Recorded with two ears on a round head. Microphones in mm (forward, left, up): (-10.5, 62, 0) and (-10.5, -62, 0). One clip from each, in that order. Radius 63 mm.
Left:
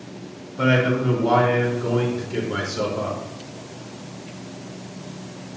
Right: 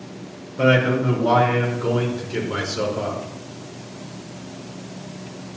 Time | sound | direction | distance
0.6 | a man speaking | 5° left (ahead or behind) | 4.5 m